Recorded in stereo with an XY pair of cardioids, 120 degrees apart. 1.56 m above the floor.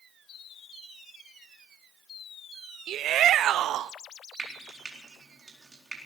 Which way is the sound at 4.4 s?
25° right.